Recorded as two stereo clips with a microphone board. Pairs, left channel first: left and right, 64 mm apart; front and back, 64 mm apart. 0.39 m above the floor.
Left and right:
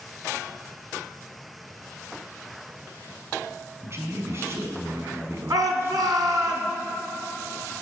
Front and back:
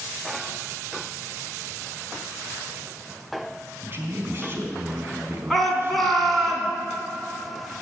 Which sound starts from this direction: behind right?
A man speaking, at 3.8 s.